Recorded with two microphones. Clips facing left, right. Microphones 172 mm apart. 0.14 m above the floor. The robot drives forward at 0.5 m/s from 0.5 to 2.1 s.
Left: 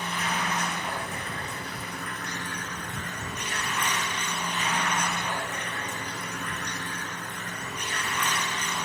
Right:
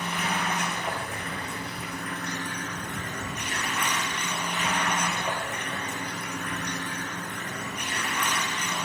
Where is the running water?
60° right (ahead or behind), 1.5 m; by 8.9 s 65° right (ahead or behind), 1.4 m.